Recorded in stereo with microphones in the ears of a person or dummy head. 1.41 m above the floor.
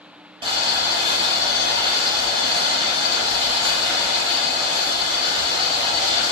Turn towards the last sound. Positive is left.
turn(degrees=-20)  # may be behind; listen again after turning